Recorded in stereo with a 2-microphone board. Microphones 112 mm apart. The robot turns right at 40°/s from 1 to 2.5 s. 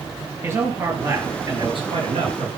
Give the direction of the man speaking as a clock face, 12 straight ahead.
5 o'clock.